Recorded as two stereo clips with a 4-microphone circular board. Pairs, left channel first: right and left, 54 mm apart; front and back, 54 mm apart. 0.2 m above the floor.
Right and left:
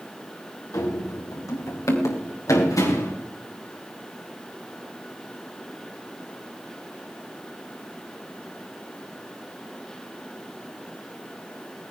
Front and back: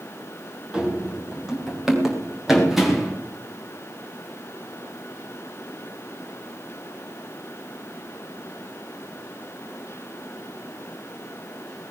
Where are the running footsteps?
105° right, 6 m; by 3.1 s 90° right, 9 m.